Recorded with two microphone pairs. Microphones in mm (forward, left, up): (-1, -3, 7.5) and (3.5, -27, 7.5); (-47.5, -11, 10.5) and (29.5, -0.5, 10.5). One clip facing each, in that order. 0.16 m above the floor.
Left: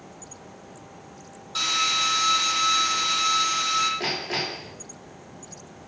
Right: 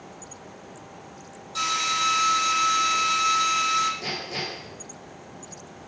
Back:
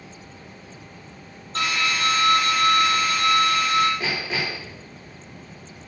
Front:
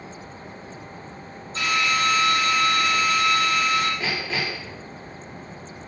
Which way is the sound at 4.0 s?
110° left.